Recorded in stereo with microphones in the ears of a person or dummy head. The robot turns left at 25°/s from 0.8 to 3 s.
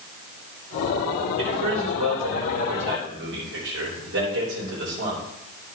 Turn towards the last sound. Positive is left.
turn(degrees=-115)